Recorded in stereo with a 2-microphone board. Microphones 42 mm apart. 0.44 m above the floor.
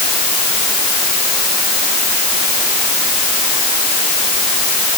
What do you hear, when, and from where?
Only background noise.